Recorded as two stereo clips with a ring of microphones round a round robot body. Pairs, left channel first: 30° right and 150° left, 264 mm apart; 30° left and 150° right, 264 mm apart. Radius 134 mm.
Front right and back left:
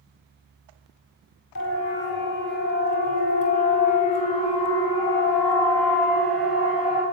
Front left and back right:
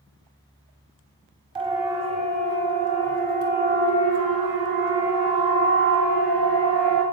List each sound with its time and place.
1.6 s a siren: 75° right, 6.5 m; by 7.0 s 125° right, 6.5 m